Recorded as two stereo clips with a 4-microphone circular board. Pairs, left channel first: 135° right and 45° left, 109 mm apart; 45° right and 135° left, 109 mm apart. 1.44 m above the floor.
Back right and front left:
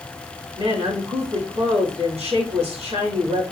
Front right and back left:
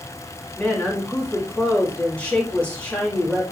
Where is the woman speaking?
30° left, 3.5 m.